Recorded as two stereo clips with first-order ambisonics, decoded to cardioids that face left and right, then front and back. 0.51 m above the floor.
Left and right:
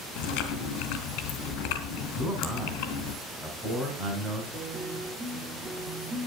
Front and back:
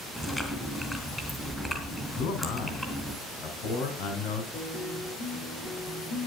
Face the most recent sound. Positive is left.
turn(degrees=-35)